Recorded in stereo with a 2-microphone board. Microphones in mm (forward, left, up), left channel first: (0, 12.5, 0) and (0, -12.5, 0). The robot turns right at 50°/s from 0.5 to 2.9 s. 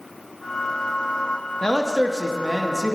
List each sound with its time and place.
1.6 s a man speaking: 25° left (ahead or behind), 0.6 m; by 3.0 s centre (ahead or behind), 0.6 m